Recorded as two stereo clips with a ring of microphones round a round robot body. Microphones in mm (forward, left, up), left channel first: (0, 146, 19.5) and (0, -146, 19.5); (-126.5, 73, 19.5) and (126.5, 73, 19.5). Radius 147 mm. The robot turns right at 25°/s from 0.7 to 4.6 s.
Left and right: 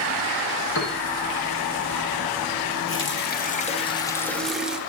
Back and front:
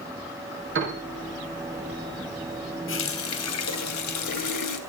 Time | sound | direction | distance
0.8 | a piano | 40° left | 9.5 m
2.9 | a running tap | 140° left | 3.5 m